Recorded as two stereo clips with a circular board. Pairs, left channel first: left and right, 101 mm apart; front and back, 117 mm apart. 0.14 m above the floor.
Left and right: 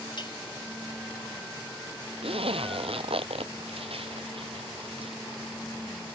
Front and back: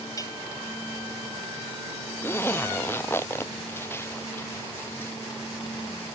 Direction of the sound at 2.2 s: 70° right.